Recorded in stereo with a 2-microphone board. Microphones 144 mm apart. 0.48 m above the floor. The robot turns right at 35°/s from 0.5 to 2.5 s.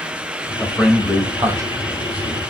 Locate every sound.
0.6 s a man speaking: 10° left (ahead or behind), 2 m; by 2.4 s 50° right (ahead or behind), 2 m